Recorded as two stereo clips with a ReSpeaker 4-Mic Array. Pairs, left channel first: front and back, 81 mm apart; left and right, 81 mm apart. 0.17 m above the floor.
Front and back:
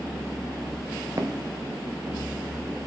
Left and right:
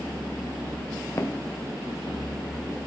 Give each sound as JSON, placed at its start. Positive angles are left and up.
{"t": 1.2, "sound": "footsteps", "azimuth_deg": 135, "distance_m": 0.9}